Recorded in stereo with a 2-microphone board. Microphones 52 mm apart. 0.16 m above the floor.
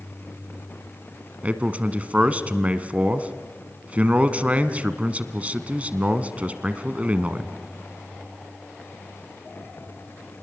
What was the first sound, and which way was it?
A man speaking, 30° right (ahead or behind).